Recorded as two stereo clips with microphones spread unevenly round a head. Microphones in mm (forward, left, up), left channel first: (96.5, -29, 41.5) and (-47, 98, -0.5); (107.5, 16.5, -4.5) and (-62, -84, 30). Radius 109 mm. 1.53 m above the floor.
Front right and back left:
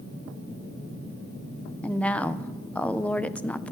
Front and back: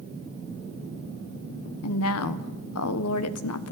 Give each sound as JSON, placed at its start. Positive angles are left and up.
{"t": 1.8, "sound": "a woman speaking", "azimuth_deg": 40, "distance_m": 1.1}